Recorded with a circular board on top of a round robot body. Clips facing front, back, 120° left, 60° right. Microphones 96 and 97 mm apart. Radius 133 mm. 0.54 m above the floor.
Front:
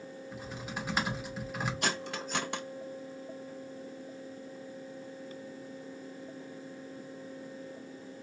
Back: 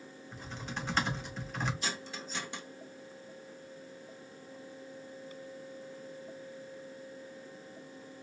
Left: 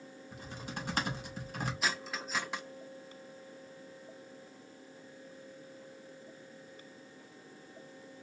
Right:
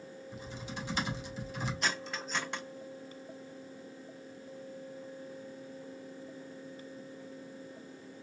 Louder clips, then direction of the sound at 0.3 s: Even, even; 80° left.